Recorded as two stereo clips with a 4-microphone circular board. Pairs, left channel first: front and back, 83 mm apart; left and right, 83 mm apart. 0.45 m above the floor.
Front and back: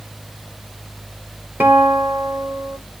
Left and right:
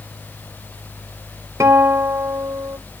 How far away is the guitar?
About 1.7 m.